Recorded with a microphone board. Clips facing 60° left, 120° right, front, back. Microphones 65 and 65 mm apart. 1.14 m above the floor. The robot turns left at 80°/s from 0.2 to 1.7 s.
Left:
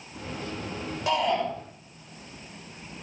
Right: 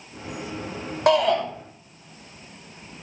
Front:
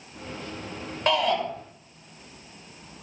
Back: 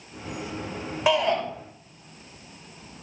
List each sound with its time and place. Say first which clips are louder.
1.1 s a shout: right 6 dB, back 1 dB; 100° right, 6 m; by 1.4 s 130° right, 6 m